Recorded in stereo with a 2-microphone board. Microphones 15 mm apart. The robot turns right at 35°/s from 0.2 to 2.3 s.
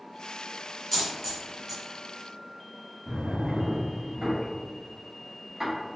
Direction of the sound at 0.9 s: 10° left (ahead or behind).